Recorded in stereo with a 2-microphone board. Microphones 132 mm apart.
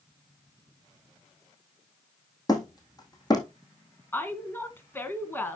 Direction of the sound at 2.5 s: 30° left (ahead or behind).